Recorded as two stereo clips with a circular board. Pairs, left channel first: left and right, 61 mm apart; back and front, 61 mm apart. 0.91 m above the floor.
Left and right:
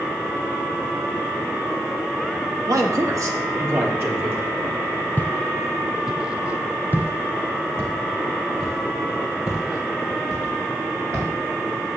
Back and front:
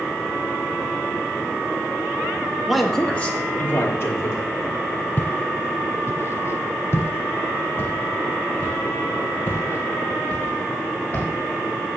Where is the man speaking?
85° right, 1.4 m; by 4.5 s 140° right, 3.5 m.